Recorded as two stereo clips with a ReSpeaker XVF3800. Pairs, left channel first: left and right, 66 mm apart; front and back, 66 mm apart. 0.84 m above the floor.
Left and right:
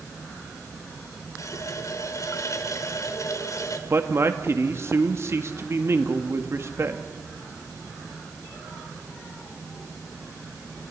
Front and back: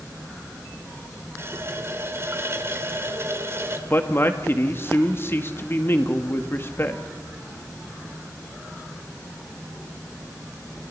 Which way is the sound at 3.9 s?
45° right.